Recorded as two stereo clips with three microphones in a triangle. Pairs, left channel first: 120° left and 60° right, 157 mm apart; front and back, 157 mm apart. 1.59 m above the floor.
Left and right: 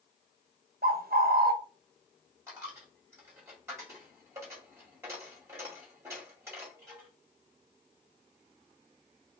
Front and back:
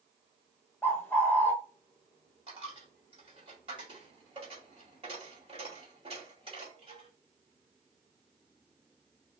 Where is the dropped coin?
130° right, 2 m.